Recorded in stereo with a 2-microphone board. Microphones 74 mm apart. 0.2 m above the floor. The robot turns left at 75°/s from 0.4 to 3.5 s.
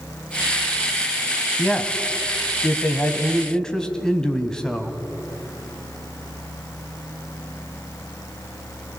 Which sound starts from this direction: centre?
A man speaking, at 1.6 s.